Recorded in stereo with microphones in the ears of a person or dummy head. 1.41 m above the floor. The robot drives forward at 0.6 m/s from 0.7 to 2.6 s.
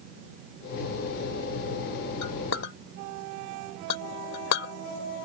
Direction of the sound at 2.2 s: 80° left.